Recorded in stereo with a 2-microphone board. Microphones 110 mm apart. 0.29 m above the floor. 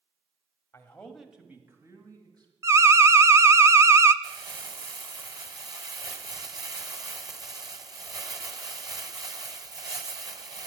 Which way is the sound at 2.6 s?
25° right (ahead or behind).